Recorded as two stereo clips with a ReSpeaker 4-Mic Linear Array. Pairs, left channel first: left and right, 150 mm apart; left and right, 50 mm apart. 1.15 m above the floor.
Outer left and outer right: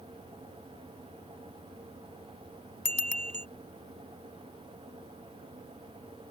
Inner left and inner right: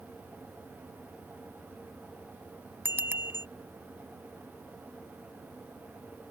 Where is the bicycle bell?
45° right (ahead or behind).